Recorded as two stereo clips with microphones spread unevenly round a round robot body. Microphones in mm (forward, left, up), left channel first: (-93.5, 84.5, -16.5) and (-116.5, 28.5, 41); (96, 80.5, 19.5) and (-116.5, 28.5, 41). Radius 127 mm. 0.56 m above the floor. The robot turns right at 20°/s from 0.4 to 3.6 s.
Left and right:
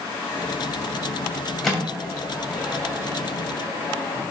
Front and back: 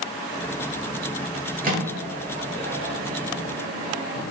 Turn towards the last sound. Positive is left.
turn(degrees=180)